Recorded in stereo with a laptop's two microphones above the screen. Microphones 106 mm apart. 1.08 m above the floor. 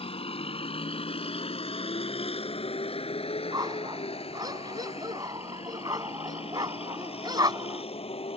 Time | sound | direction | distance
0.0 | a vehicle | 65° left (ahead or behind) | ?
3.5 | a dog barking | 40° right (ahead or behind) | ?